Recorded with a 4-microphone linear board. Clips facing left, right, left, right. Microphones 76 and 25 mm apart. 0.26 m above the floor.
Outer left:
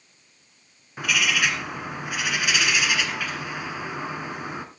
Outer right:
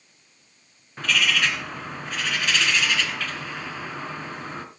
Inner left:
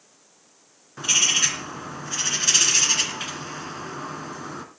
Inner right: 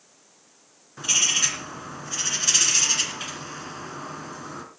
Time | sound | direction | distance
1.0 | a bird | 10° left (ahead or behind) | 2 m